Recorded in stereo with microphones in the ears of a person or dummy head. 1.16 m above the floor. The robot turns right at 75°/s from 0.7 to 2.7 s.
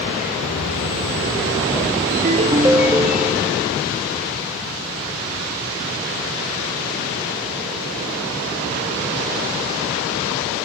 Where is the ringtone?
50° right, 0.5 m; by 3.7 s 10° right, 0.5 m.